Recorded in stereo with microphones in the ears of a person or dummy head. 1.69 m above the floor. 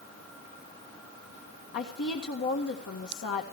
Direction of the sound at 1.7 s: 55° left (ahead or behind).